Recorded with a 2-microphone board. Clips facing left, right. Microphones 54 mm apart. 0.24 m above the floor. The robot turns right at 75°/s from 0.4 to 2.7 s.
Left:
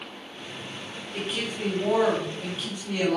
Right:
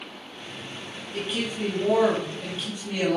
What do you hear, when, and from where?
1.1 s a woman speaking: 50° left, 1.2 m; by 3.2 s 165° left, 1.2 m